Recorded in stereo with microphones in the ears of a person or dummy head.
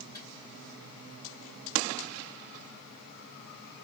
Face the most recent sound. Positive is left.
turn(degrees=15)  # may be behind; listen again after turning